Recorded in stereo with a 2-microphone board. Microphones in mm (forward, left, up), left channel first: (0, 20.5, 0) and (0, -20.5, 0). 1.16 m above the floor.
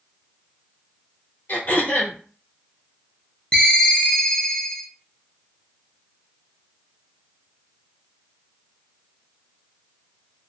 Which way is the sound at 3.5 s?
20° left (ahead or behind).